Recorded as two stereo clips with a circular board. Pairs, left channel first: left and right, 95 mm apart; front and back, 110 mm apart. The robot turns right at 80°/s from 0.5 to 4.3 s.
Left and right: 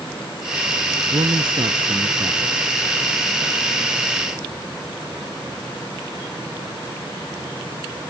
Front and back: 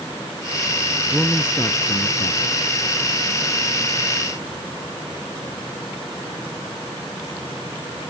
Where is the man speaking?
110° right; by 2.8 s 30° left.